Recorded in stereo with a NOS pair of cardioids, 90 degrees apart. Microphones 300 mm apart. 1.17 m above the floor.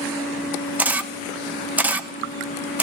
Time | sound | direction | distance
0.8 | a camera shutter | 5° right | 0.5 m